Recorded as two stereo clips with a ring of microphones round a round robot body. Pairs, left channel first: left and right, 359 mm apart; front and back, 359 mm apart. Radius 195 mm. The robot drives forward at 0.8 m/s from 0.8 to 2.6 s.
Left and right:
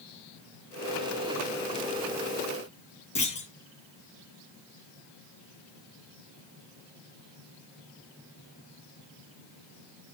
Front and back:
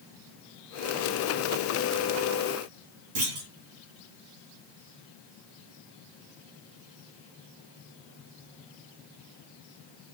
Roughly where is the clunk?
Behind.